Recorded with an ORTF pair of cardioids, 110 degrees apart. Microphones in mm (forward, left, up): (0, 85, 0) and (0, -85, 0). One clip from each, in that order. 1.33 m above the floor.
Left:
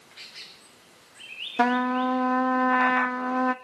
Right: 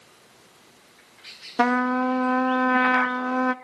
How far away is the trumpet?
About 0.6 m.